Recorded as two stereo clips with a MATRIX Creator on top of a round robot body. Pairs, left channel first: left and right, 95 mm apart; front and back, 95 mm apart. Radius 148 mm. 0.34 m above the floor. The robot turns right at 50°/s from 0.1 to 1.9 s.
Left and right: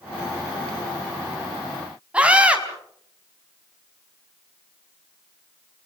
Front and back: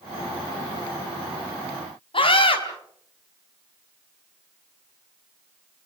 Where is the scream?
15° right, 5 m.